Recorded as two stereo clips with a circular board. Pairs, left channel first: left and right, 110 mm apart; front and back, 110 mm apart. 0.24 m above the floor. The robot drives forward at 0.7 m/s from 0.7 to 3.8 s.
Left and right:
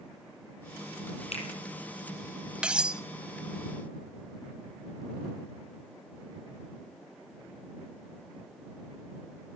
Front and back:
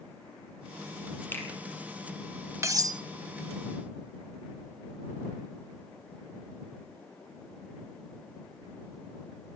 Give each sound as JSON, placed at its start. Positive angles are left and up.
{"t": 1.3, "sound": "a finger snap", "azimuth_deg": 70, "distance_m": 5.5}
{"t": 2.6, "sound": "cutlery clinking", "azimuth_deg": -160, "distance_m": 0.6}